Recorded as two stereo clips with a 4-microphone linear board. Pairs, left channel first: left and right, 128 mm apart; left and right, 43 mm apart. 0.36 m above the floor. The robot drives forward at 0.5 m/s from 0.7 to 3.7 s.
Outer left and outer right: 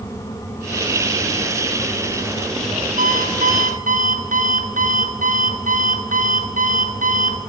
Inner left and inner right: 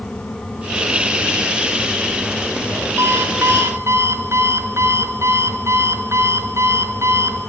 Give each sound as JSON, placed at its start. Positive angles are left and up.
{"t": 3.0, "sound": "an alarm clock", "side_deg": -80, "distance_m": 3.0}